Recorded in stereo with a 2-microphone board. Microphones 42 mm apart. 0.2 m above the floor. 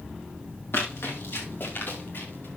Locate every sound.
0.7 s running footsteps: 75° left (ahead or behind), 4 m; by 2.5 s 60° left (ahead or behind), 5 m